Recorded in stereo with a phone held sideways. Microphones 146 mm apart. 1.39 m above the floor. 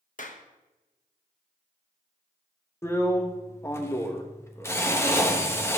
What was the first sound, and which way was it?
A clap, 60° left (ahead or behind).